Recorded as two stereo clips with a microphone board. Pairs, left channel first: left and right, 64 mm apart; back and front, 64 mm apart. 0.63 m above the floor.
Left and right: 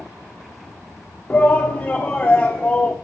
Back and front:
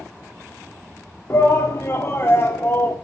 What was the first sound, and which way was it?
A shout, 150° left.